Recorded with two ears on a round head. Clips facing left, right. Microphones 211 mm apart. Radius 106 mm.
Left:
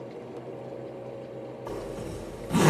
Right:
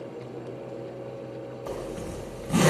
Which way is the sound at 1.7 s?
50° right (ahead or behind).